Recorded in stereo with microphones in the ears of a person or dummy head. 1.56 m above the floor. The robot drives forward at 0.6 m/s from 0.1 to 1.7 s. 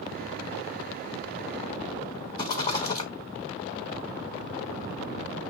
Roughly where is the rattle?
Centre.